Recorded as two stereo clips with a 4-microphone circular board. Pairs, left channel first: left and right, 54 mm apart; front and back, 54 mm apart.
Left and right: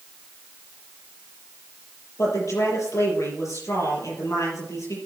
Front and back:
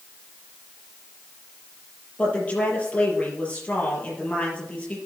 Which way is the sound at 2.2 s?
65° left.